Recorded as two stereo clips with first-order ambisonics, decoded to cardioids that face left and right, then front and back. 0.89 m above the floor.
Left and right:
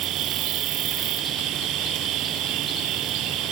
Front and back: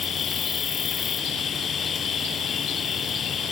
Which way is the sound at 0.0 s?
60° right.